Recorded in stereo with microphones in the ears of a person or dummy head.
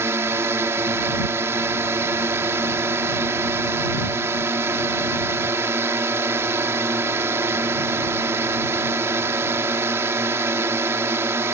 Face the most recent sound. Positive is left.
turn(degrees=-10)  # may be behind; listen again after turning